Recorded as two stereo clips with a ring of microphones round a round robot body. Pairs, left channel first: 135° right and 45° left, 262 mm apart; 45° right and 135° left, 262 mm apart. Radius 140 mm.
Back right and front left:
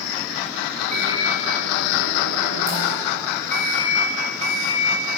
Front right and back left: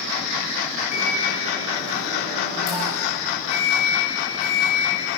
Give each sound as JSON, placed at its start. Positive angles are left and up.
{"t": 0.9, "sound": "a microwave", "azimuth_deg": -20, "distance_m": 4.5}